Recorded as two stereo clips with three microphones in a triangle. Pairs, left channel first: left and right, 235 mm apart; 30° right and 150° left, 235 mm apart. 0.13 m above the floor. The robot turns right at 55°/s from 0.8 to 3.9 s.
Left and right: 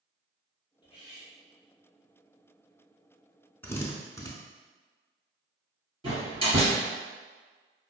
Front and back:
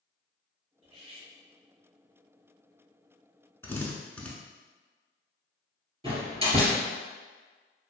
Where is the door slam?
150° right, 1.9 m.